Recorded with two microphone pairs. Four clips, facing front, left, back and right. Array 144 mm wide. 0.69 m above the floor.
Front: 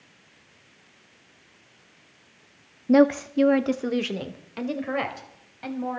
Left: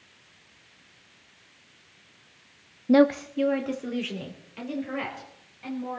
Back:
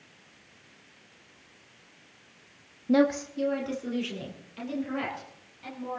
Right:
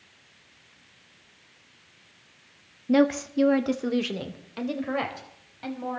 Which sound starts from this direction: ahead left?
A woman speaking, at 2.9 s.